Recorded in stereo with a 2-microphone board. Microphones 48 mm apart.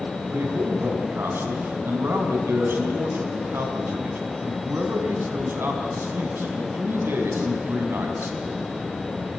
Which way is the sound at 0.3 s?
55° right (ahead or behind).